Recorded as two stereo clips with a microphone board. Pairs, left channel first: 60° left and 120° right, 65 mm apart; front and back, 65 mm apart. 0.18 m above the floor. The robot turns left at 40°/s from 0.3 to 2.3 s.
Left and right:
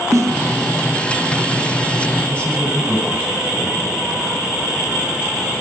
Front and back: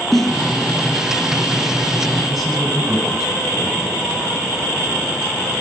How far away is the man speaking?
About 1.5 m.